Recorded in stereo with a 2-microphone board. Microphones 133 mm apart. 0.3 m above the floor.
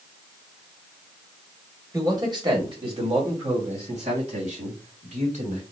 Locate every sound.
1.9 s a man speaking: 25° right (ahead or behind), 1.9 m; by 5.6 s 70° right (ahead or behind), 4 m